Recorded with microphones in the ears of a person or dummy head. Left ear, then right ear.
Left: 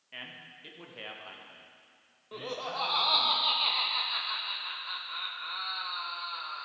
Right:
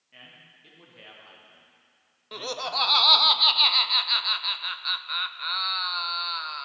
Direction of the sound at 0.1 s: 35° left (ahead or behind).